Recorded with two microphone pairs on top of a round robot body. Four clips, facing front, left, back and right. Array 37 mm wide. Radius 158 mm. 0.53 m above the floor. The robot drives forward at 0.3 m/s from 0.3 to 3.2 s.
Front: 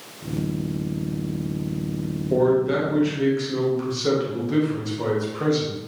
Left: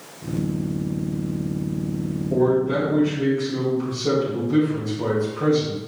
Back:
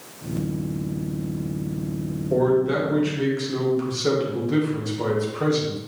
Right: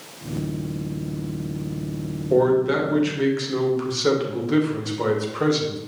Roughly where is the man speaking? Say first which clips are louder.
Right 2 dB, front 1 dB; right.